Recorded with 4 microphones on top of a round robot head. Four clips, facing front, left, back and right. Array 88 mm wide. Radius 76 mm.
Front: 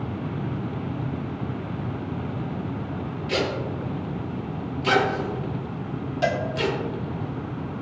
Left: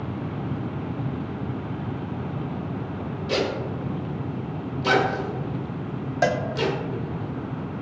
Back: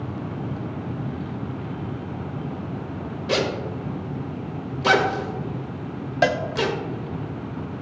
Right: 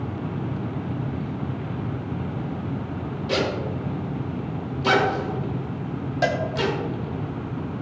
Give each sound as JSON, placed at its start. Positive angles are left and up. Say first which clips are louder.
{"t": 3.3, "sound": "a zipper", "louder": "right 1 dB, back 2 dB", "azimuth_deg": 180, "distance_m": 1.8}
{"t": 6.2, "sound": "a cowbell", "louder": "left 1 dB, back 4 dB", "azimuth_deg": 155, "distance_m": 0.9}